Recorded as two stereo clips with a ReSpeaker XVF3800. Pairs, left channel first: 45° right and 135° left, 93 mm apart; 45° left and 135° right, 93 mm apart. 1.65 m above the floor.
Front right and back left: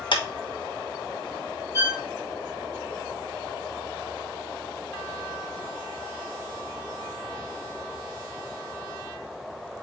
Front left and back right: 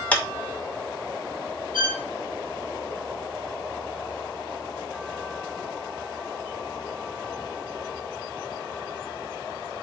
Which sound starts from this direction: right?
A violin, at 1.7 s.